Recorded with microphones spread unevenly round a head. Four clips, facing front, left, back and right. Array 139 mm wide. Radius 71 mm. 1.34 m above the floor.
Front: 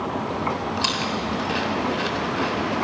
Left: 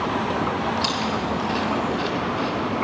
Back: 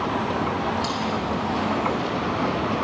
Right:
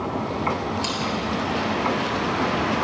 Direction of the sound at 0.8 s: Straight ahead.